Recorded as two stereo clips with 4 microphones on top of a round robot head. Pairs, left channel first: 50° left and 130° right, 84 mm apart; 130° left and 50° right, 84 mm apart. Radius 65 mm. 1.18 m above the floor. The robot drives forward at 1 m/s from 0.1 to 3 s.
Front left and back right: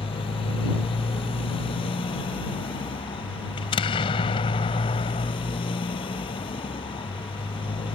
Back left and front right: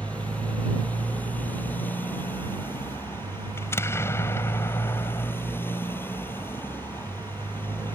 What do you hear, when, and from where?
0.0 s a motorcycle: 55° left; by 8.0 s 65° left
3.6 s an explosion: 70° left